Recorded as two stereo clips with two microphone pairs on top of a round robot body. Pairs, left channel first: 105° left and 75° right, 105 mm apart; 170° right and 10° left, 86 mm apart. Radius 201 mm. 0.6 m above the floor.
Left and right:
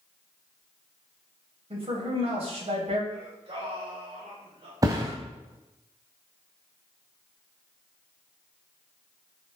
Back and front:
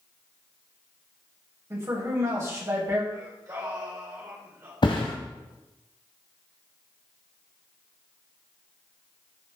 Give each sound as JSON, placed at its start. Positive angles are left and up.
{"t": 1.7, "sound": "a man speaking", "azimuth_deg": -45, "distance_m": 4.0}
{"t": 3.1, "sound": "singing", "azimuth_deg": -45, "distance_m": 4.0}
{"t": 4.8, "sound": "a thud", "azimuth_deg": -135, "distance_m": 0.8}